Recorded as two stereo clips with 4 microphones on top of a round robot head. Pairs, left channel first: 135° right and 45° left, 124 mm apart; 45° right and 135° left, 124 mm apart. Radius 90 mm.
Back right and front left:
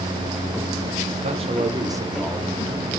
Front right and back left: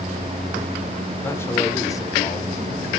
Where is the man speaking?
25° left, 2.0 m; by 3.0 s 105° right, 1.4 m.